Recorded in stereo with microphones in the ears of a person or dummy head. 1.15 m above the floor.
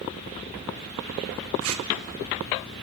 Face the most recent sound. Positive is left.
turn(degrees=-75)  # may be behind; listen again after turning